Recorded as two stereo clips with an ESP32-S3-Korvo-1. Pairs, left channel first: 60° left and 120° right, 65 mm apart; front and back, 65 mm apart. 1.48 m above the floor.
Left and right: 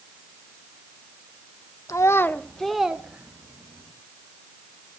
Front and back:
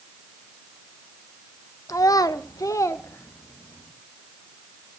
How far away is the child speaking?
About 0.9 m.